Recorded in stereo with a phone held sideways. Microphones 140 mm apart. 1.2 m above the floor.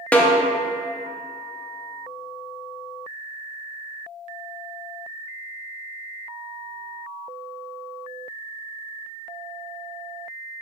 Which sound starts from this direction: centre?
A snare drum, at 0.1 s.